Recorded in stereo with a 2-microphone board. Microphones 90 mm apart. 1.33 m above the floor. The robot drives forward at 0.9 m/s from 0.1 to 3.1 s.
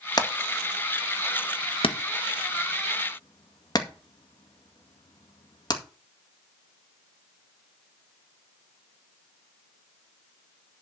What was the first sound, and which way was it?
Hammering, 45° left (ahead or behind).